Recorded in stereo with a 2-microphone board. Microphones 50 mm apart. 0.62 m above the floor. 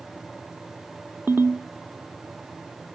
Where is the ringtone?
45° right (ahead or behind), 0.8 m.